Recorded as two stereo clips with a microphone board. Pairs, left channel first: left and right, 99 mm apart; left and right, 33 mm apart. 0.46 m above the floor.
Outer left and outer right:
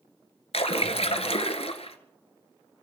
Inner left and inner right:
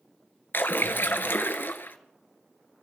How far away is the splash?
About 1.4 m.